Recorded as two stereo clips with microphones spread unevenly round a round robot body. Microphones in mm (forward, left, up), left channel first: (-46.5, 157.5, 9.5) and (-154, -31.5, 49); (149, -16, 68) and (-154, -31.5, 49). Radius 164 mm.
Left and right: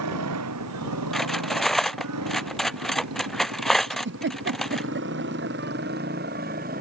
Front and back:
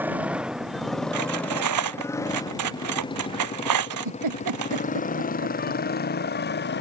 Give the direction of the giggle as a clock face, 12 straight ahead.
5 o'clock.